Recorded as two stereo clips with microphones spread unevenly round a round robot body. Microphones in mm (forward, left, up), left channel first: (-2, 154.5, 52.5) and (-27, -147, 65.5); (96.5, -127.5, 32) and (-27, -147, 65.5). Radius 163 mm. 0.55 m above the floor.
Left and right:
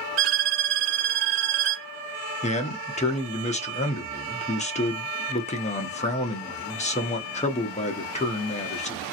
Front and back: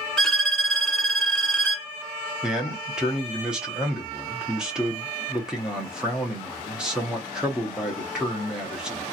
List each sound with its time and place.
0.2 s a violin: 85° right, 1.4 m
2.4 s a man speaking: 75° left, 0.8 m